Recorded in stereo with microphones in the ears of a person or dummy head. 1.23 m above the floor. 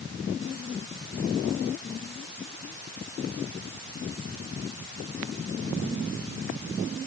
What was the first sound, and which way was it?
Only background noise.